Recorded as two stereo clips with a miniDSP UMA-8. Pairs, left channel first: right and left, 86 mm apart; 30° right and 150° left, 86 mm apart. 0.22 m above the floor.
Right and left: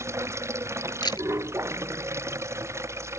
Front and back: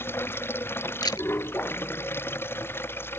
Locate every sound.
0.0 s running water: 30° left
1.0 s a camera shutter: 65° right